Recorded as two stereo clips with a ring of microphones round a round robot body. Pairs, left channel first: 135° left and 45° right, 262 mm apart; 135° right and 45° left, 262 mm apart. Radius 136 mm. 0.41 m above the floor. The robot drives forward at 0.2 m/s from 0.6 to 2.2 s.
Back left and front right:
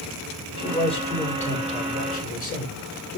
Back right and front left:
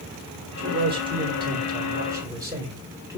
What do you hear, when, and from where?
0.6 s a man speaking: 85° left, 1.4 m; by 3.2 s 110° left, 1.4 m